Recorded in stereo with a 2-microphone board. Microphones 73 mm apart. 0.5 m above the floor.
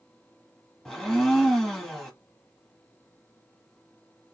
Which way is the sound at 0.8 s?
10° left (ahead or behind).